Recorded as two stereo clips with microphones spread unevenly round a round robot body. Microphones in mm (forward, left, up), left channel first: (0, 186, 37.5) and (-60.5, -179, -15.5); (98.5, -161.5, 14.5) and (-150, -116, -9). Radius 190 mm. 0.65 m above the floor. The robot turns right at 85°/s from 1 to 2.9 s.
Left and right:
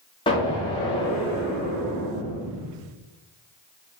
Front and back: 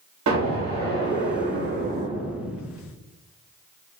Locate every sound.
0.3 s an explosion: 155° left, 0.9 m; by 2.8 s 55° right, 0.9 m